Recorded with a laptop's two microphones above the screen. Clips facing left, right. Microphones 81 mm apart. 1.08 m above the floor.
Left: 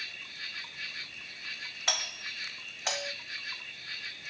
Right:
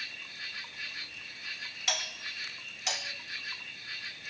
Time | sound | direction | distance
0.0 | an insect | 5° right (ahead or behind) | 0.9 m
1.9 | a doorbell | 35° left (ahead or behind) | 1.6 m